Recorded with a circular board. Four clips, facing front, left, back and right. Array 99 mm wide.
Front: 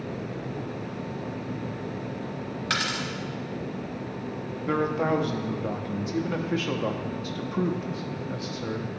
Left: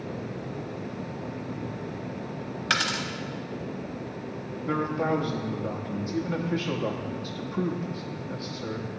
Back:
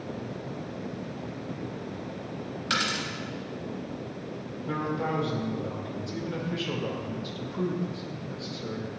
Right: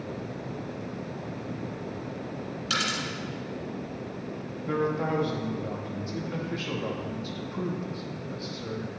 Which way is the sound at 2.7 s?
70° left.